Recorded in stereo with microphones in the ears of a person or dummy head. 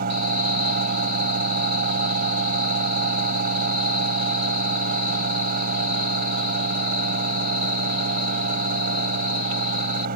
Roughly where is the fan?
Right.